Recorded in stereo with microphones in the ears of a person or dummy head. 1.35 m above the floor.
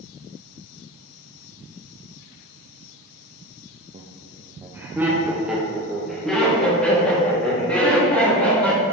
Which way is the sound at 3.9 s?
35° right (ahead or behind).